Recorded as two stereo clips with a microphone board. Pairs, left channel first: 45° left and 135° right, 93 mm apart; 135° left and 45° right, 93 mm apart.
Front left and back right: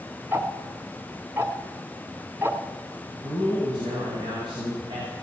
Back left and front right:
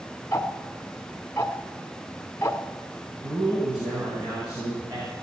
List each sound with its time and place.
0.3 s ticking: straight behind, 1.2 m
3.2 s a man speaking: 90° right, 5 m